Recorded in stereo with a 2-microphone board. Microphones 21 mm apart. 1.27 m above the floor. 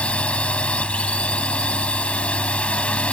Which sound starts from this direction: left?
A drone, at 0.0 s.